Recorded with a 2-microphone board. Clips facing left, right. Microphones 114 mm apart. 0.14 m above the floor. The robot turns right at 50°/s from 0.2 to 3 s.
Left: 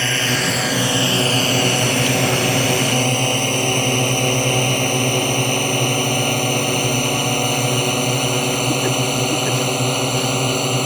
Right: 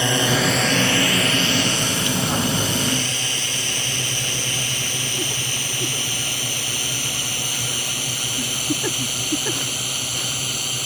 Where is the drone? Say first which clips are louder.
Right 2 dB; 15° right (ahead or behind); by 10.9 s 55° left (ahead or behind).